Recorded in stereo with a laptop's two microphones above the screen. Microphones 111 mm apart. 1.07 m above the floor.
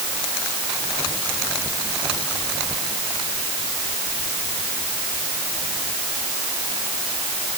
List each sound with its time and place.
Only background noise.